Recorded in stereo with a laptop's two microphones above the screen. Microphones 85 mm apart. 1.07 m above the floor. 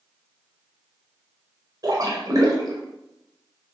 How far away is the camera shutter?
I don't hear a camera shutter.